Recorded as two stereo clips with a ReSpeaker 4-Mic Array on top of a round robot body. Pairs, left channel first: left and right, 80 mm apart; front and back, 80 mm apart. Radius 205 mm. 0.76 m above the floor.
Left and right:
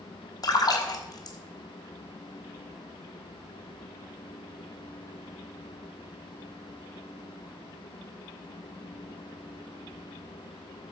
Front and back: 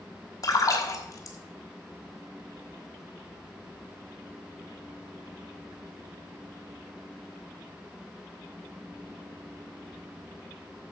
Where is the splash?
50° left, 1.3 m.